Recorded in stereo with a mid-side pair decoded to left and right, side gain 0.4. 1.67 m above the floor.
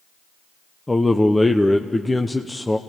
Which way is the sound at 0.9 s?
15° left.